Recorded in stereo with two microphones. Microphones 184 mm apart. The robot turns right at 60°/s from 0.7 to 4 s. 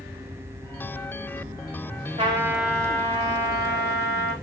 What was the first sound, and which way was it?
A trumpet, 30° right.